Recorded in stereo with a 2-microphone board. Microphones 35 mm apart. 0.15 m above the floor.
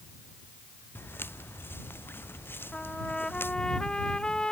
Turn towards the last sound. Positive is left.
turn(degrees=20)  # may be behind; listen again after turning